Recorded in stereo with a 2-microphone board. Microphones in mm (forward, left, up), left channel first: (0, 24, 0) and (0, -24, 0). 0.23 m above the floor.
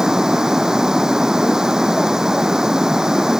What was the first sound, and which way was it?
Running water, 10° right (ahead or behind).